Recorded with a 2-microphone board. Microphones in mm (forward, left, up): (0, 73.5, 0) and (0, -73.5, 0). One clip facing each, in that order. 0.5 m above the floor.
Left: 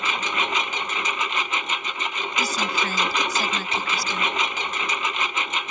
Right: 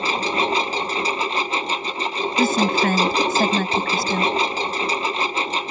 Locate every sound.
0.0 s a lawn mower: 35° right (ahead or behind)
2.4 s a woman speaking: 60° right (ahead or behind)